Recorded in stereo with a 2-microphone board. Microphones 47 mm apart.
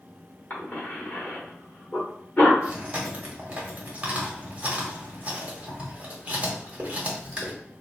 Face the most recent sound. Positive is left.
turn(degrees=-25)  # may be behind; listen again after turning